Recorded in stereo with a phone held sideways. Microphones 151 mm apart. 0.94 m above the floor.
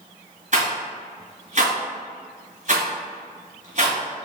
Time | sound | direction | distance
0.5 | a rattle | 55° right (ahead or behind) | 1.7 m